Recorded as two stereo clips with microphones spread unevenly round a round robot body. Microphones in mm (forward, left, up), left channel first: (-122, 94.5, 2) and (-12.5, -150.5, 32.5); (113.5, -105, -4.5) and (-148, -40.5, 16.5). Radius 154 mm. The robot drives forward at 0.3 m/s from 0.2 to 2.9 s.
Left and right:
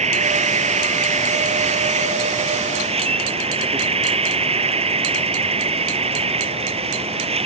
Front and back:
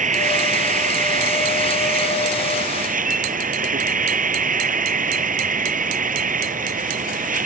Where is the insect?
130° right; by 7.5 s 135° right.